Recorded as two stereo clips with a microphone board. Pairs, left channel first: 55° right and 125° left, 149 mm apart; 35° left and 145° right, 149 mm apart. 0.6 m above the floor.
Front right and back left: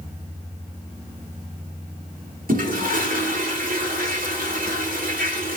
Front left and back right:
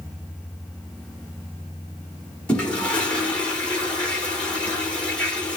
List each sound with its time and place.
2.5 s a toilet flushing: 115° left, 1.4 m